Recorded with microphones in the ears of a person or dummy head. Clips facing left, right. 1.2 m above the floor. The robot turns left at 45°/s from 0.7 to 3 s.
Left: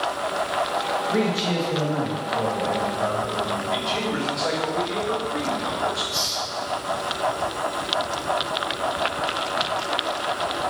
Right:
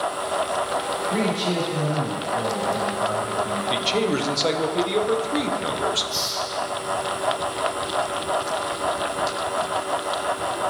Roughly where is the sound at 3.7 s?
Right.